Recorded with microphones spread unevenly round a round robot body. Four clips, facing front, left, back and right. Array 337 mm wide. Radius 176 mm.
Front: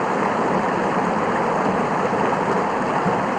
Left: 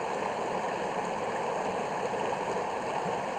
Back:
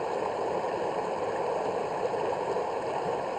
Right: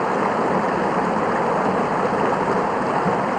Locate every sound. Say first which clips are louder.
0.0 s running water: right 12 dB, front 10 dB; 40° right